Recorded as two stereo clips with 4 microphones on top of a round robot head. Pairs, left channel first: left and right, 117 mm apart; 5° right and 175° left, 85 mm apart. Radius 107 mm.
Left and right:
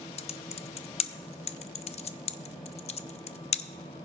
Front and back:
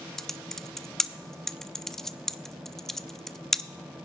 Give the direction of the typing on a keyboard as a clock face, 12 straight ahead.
9 o'clock.